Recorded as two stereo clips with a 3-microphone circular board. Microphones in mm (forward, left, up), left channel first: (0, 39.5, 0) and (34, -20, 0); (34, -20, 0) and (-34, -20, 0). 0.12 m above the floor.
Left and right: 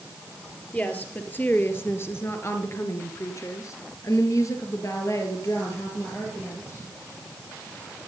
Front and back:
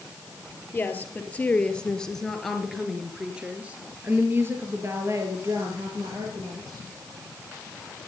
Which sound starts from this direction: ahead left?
A woman speaking, at 0.7 s.